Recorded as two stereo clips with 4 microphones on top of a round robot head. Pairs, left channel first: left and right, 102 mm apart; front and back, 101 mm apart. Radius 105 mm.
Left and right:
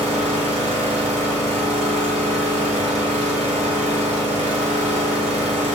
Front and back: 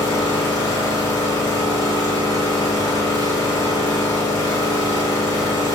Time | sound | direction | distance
0.0 | an engine running | 65° right | 0.8 m